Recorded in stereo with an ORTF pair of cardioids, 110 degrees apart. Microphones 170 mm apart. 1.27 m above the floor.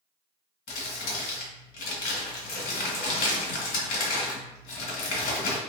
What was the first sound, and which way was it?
Crumpling, 65° left.